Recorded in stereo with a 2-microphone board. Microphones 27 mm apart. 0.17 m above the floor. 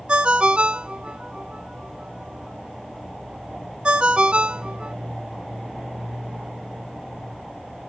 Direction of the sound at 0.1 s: 40° right (ahead or behind).